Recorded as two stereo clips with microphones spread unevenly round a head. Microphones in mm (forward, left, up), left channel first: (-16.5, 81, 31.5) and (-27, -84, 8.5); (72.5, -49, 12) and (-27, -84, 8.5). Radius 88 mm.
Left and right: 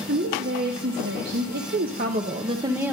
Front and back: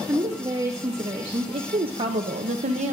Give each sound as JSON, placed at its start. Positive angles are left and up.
{"t": 0.1, "sound": "a woman speaking", "azimuth_deg": -100, "distance_m": 2.0}